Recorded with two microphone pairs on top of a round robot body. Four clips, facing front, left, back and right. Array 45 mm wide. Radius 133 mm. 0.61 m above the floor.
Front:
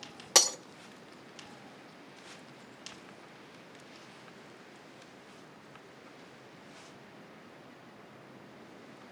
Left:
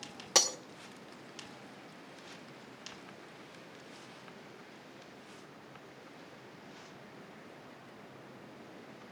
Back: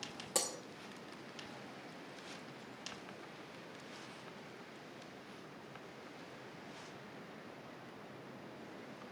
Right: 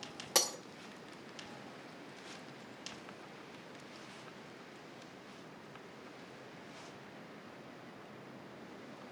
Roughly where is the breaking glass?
Ahead.